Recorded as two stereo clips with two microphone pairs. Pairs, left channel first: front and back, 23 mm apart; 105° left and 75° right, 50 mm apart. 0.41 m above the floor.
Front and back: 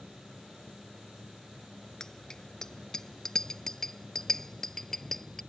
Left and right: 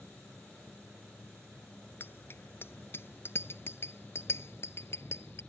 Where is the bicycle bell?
60° left; by 5.4 s 70° left.